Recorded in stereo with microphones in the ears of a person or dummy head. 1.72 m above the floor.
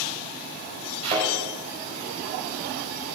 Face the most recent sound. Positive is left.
turn(degrees=-30)  # may be behind; listen again after turning